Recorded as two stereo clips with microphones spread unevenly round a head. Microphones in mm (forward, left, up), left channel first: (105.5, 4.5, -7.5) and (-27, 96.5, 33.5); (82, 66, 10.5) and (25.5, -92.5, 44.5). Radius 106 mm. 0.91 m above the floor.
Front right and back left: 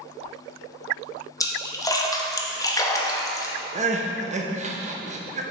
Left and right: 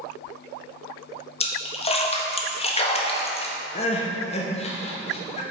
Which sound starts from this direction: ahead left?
A splash, at 1.4 s.